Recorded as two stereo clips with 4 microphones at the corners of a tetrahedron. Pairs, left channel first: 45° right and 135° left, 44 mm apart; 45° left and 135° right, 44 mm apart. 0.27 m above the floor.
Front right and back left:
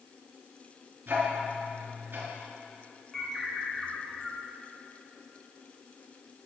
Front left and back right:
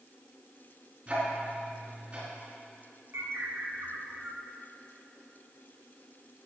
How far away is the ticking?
About 4 m.